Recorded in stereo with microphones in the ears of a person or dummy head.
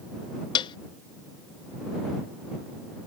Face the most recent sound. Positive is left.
turn(degrees=25)  # may be behind; listen again after turning